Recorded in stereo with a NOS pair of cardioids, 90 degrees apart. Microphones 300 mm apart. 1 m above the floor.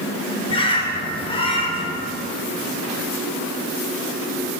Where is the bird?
15° left, 1.0 m.